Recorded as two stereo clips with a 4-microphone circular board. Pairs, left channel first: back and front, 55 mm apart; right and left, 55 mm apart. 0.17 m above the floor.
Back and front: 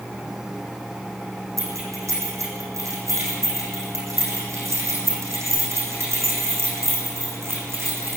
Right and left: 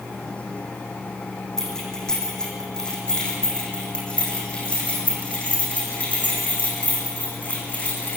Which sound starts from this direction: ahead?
Keys jangling, at 1.6 s.